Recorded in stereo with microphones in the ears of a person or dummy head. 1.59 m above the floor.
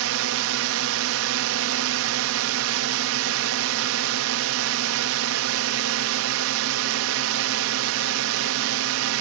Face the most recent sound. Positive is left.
turn(degrees=-75)  # may be behind; listen again after turning